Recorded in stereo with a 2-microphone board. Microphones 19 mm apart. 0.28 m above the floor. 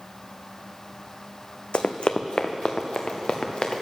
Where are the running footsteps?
70° left (ahead or behind), 0.7 m; by 3.8 s 60° left (ahead or behind), 1.8 m.